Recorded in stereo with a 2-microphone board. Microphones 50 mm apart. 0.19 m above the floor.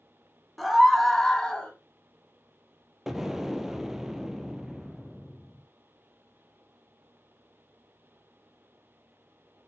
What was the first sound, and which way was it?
A scream, centre (ahead or behind).